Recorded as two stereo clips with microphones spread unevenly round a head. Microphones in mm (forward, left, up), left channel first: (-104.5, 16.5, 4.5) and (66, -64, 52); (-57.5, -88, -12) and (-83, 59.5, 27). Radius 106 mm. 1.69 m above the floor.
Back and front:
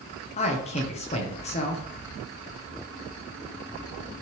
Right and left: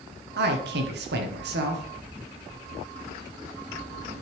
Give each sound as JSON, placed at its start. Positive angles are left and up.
{"t": 0.4, "sound": "a man speaking", "azimuth_deg": 95, "distance_m": 1.5}